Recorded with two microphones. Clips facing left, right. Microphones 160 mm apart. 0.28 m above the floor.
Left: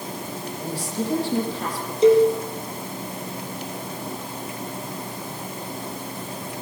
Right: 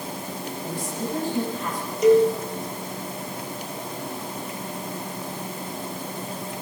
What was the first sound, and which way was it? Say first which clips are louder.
A woman speaking: left 4 dB; 85° left.